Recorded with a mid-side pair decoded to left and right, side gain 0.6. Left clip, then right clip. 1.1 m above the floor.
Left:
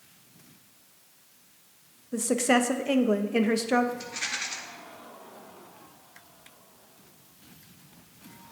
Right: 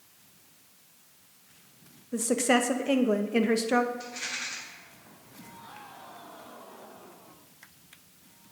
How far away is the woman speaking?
About 0.6 m.